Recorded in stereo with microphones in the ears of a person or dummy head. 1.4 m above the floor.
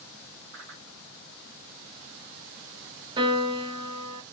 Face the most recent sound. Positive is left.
turn(degrees=-30)  # may be behind; listen again after turning